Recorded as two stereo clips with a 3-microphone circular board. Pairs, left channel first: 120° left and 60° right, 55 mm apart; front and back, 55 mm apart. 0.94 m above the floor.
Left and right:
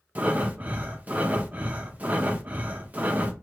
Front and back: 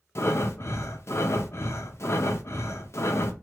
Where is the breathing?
5° right, 0.6 m.